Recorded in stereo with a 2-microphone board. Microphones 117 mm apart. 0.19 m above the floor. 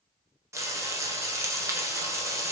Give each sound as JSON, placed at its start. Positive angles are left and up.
{"t": 0.5, "sound": "frying", "side_deg": -25, "distance_m": 0.8}